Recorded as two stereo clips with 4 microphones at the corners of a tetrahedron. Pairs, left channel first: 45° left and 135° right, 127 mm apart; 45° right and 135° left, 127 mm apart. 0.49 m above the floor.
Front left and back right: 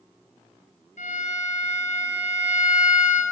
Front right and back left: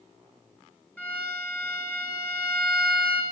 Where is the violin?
35° left, 4.5 m.